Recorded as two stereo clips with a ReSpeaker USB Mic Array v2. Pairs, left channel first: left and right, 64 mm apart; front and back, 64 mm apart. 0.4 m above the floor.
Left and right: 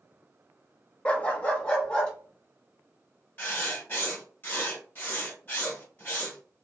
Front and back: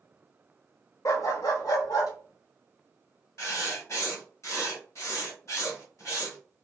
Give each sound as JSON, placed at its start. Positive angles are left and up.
{"t": 1.1, "sound": "a dog barking", "azimuth_deg": 20, "distance_m": 0.5}
{"t": 3.4, "sound": "writing", "azimuth_deg": 35, "distance_m": 1.8}